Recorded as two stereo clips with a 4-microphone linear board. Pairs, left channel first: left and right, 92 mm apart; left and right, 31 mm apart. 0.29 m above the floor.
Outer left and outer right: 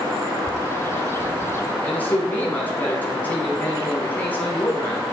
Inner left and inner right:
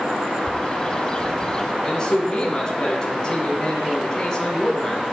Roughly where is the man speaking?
Centre.